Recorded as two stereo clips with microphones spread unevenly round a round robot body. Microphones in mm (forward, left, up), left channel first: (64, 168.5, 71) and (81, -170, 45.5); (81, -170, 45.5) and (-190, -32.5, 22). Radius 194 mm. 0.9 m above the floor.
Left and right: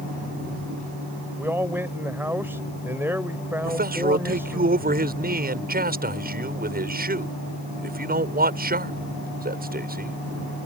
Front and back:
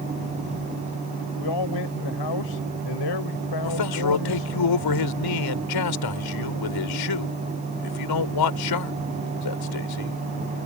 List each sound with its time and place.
1.4 s a man speaking: straight ahead
3.6 s a man speaking: 20° right